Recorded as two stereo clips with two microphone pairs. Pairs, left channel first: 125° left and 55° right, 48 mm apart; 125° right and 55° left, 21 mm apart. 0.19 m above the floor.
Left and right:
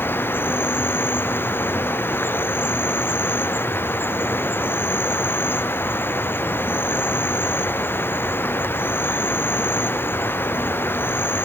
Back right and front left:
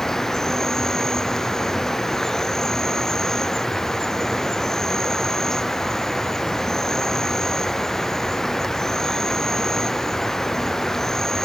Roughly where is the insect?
Behind.